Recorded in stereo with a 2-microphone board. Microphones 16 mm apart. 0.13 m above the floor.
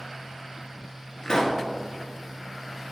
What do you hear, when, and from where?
1.2 s a pop: 45° left (ahead or behind), 1.8 m